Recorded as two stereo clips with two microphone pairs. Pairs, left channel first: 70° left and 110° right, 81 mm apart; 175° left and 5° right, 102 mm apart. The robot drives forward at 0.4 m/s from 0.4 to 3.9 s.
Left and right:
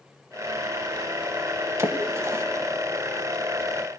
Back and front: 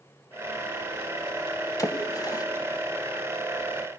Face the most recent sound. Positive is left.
turn(degrees=-160)